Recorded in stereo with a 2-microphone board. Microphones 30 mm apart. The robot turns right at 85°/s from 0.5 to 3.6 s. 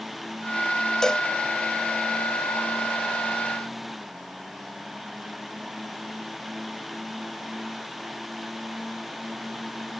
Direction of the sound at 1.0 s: 20° left (ahead or behind).